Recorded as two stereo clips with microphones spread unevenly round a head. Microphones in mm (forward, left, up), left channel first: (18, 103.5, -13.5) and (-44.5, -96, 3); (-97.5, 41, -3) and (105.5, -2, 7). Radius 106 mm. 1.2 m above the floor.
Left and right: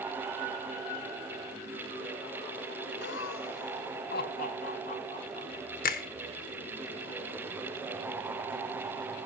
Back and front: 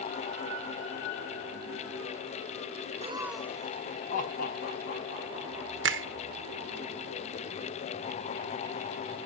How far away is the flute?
No flute in this recording.